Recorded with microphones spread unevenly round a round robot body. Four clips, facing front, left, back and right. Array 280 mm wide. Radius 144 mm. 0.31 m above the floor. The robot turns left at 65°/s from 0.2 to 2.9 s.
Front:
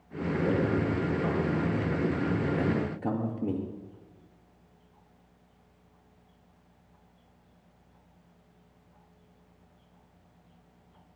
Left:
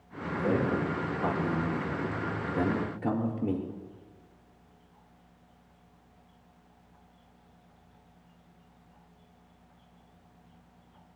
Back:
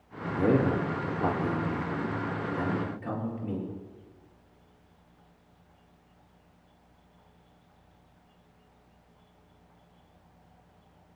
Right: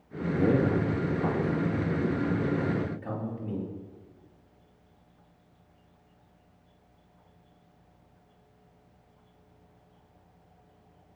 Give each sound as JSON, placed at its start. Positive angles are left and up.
{"t": 0.4, "sound": "a man speaking", "azimuth_deg": -145, "distance_m": 5.0}